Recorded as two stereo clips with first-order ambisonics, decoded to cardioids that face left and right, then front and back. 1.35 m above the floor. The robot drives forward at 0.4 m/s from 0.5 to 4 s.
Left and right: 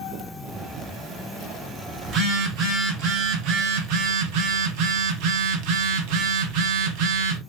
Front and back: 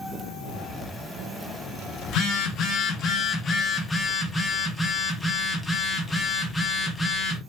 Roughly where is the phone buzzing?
Ahead right.